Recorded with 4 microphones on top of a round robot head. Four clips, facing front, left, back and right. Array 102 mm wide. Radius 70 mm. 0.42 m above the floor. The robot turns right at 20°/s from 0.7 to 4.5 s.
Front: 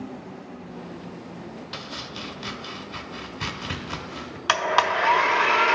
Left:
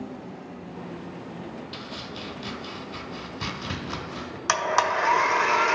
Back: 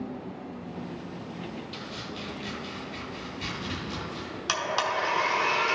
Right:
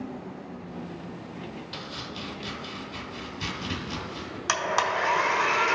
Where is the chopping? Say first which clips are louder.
Left 1 dB, front 1 dB; straight ahead, 0.8 m; by 4.4 s 50° left, 0.8 m.